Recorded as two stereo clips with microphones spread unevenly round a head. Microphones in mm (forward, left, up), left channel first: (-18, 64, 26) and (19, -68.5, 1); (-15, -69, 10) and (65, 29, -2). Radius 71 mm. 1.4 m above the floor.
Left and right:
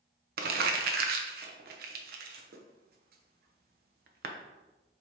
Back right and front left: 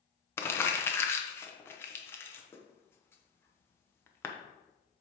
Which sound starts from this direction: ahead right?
Crumpling, at 0.4 s.